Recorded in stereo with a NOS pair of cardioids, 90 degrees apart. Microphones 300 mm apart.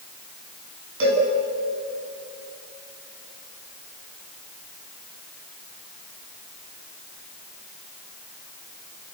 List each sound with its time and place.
1.0 s a cowbell: 45° right, 8 m